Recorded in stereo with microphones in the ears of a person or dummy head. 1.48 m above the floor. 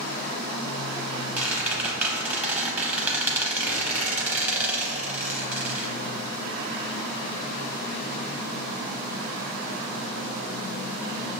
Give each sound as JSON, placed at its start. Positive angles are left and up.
{"t": 1.4, "sound": "a squeak", "side_deg": -10, "distance_m": 0.8}